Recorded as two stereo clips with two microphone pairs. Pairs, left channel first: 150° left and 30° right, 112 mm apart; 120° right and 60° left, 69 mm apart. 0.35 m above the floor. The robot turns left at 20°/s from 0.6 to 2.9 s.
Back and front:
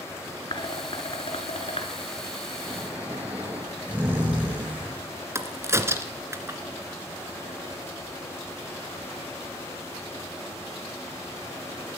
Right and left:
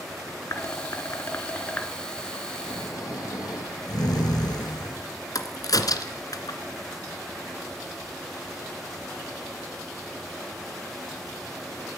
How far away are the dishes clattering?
About 3.5 m.